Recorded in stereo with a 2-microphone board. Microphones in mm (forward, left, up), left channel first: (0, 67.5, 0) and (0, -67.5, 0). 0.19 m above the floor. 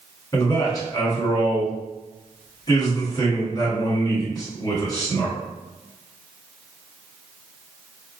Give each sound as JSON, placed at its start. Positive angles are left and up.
{"t": 0.3, "sound": "a man speaking", "side_deg": 30, "distance_m": 1.3}